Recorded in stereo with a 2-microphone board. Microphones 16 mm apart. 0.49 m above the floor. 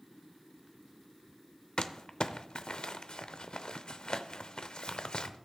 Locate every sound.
1.8 s crumpling: 60° left (ahead or behind), 0.6 m